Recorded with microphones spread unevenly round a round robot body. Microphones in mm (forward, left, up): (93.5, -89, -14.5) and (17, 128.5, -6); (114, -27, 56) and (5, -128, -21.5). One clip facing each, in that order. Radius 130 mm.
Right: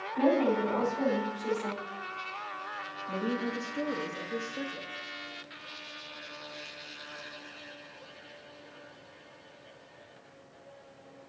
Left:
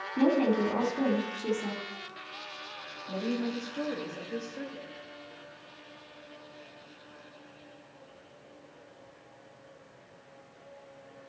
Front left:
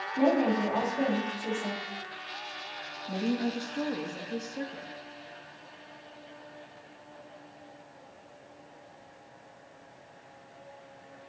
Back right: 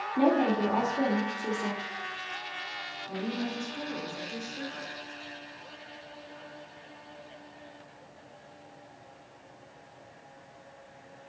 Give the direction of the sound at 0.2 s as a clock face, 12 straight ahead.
7 o'clock.